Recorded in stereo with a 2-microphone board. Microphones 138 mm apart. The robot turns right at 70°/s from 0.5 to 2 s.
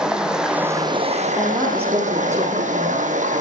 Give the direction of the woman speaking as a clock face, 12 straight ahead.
5 o'clock.